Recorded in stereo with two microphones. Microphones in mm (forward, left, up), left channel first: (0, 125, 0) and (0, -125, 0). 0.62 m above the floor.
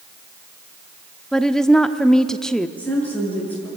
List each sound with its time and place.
1.3 s a woman speaking: centre (ahead or behind), 0.9 m
2.8 s a woman speaking: 5° left (ahead or behind), 8.5 m